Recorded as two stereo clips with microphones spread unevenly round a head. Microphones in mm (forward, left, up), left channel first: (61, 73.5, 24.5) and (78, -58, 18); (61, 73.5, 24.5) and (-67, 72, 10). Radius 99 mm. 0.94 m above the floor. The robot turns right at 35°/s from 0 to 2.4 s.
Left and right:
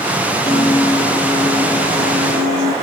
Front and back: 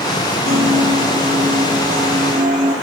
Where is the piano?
155° left, 10 m; by 2.8 s 135° right, 10 m.